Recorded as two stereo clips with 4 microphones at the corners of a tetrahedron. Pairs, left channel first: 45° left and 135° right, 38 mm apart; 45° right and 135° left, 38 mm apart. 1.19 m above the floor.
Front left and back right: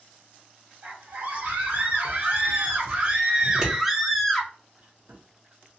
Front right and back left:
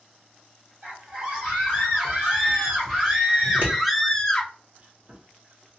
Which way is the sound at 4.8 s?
175° right.